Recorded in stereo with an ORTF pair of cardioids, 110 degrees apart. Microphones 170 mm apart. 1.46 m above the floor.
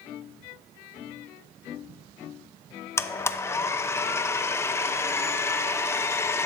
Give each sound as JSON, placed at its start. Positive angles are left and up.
{"t": 3.0, "sound": "a blender", "azimuth_deg": 15, "distance_m": 0.6}